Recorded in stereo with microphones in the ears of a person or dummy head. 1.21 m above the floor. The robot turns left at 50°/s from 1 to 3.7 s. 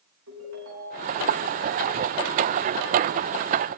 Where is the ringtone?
65° right (ahead or behind), 8 m; by 1.2 s 60° right (ahead or behind), 8 m.